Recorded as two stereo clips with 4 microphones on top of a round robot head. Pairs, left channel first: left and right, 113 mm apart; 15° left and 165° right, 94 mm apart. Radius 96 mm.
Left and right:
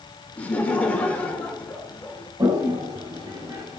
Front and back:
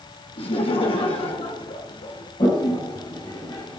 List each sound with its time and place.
0.4 s laughter: 15° left, 3.5 m
2.4 s a toilet flushing: 35° right, 6 m